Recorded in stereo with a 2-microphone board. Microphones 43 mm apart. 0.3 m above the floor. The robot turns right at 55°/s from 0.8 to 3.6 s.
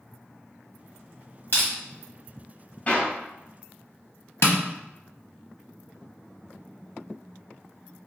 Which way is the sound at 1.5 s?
45° left (ahead or behind).